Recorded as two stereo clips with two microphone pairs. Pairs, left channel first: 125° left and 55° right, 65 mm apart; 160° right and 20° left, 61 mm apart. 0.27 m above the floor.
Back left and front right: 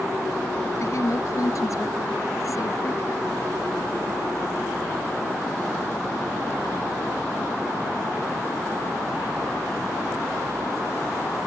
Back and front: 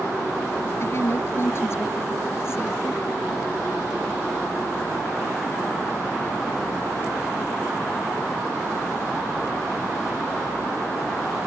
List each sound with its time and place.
0.8 s a woman speaking: 155° left